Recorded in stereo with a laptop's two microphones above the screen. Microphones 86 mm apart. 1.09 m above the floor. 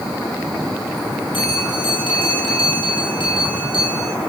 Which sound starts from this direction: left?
A bell, at 1.3 s.